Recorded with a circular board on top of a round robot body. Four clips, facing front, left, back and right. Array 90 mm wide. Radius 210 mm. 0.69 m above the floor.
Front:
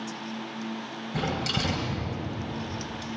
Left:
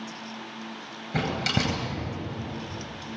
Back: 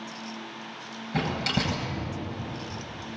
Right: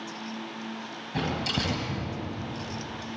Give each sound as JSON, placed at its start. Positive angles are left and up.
{"t": 1.1, "sound": "a door slam", "azimuth_deg": 105, "distance_m": 9.5}